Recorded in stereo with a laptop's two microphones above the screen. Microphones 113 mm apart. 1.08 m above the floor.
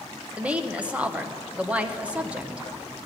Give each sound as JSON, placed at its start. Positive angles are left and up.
{"t": 0.4, "sound": "a woman speaking", "side_deg": -10, "distance_m": 0.8}